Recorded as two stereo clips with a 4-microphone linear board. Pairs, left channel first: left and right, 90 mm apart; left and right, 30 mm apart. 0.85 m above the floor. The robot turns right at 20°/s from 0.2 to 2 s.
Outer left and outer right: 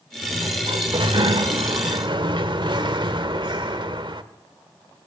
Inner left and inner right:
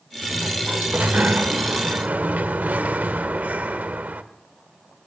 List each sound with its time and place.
0.2 s a sliding door: 100° right, 1.4 m; by 4.2 s 65° right, 1.4 m